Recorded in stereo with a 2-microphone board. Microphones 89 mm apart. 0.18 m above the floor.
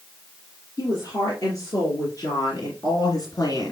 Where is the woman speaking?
40° left (ahead or behind), 3 m; by 3.7 s 45° left (ahead or behind), 1.7 m.